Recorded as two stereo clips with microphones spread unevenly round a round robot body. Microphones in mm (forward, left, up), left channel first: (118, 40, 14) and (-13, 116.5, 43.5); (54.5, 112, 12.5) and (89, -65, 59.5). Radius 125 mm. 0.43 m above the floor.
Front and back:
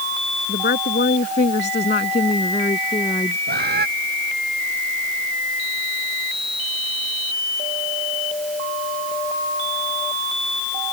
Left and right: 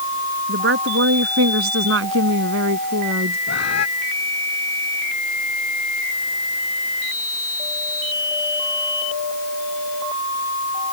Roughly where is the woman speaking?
Right.